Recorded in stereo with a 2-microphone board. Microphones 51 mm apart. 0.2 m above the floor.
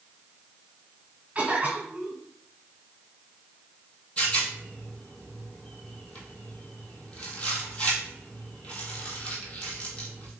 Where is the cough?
20° right (ahead or behind), 2.0 m.